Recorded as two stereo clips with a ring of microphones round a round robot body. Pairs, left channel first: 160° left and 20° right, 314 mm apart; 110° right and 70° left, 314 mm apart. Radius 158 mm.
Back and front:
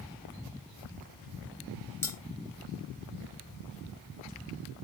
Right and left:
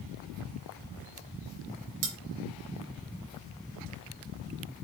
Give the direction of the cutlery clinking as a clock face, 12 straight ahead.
9 o'clock.